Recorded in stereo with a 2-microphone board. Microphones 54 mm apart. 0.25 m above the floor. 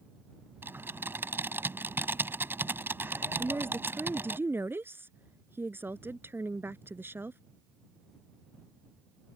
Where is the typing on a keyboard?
45° right (ahead or behind).